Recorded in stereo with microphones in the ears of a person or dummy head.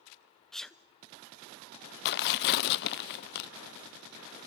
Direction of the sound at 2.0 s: 55° left (ahead or behind).